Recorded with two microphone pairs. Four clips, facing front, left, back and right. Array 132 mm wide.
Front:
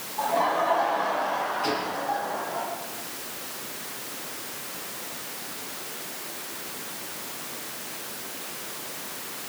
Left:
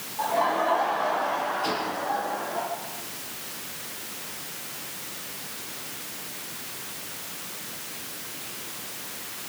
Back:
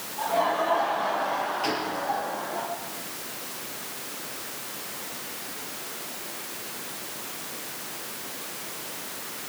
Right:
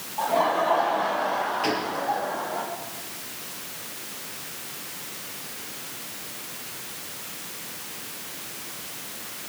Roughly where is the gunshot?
Right.